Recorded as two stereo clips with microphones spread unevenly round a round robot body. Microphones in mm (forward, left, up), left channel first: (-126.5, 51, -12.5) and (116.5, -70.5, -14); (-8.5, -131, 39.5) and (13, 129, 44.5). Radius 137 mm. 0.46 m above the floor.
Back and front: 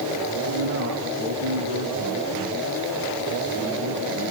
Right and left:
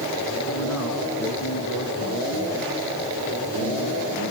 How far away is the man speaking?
About 7.5 m.